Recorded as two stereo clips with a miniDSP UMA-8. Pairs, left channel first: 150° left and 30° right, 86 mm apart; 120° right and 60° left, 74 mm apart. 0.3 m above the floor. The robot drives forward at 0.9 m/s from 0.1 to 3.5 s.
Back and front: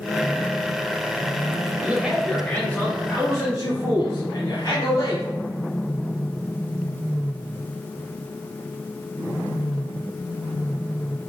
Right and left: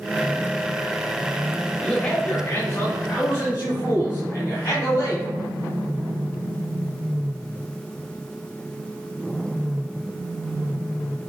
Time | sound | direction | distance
1.8 | a man speaking | 55° right | 0.9 m